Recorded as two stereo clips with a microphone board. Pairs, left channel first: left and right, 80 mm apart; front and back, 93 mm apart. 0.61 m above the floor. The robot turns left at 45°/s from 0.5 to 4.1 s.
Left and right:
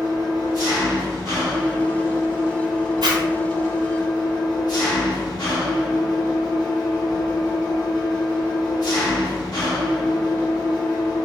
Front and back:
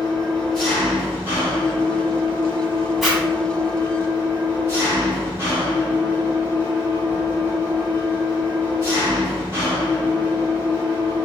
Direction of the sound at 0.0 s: 80° right.